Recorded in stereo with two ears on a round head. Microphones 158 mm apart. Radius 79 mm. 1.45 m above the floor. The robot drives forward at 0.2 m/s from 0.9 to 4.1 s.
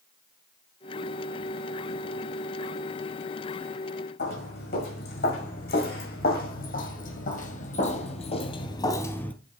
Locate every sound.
4.2 s footsteps: 60° left (ahead or behind), 5 m; by 9.3 s 5° left (ahead or behind), 1.4 m